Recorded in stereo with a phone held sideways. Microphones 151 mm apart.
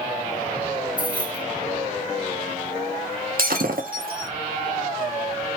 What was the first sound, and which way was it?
Keys jangling, 10° right (ahead or behind).